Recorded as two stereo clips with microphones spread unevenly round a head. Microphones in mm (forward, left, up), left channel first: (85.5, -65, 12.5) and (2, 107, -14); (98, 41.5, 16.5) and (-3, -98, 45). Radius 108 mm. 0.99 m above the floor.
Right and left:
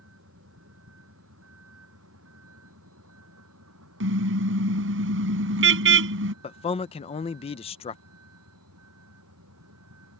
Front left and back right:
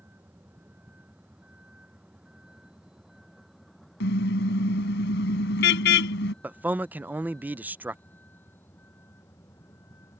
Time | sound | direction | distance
0.0 | a vehicle | 155° left | ?
4.0 | a car horn | 95° left | ?
6.4 | a man speaking | 35° right | ?